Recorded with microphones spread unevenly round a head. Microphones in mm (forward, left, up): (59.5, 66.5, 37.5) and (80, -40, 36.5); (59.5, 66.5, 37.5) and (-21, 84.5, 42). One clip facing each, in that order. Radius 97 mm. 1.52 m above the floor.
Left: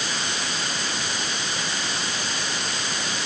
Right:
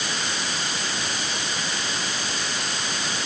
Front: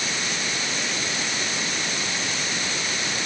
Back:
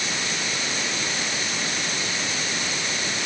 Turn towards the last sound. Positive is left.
No sound to turn to.